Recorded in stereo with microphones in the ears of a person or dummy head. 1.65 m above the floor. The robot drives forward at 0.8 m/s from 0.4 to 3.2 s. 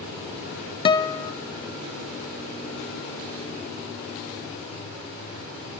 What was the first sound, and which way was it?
A guitar, 30° left (ahead or behind).